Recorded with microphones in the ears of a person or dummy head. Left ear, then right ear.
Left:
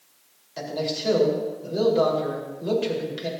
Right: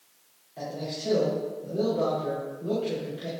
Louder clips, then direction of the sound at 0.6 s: Left 6 dB; 60° left (ahead or behind).